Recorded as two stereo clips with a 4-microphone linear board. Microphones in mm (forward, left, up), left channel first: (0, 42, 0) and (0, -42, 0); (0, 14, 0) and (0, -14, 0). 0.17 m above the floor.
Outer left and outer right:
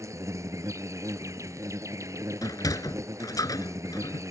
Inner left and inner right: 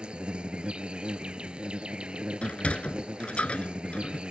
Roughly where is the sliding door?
Left.